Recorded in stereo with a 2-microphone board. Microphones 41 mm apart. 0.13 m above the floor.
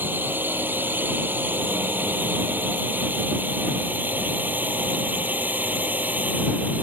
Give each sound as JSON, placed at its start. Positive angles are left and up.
{"t": 0.0, "sound": "a drone", "side_deg": -50}